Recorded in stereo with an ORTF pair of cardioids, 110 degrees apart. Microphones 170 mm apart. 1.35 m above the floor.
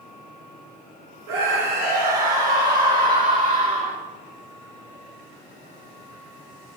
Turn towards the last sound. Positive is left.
turn(degrees=-50)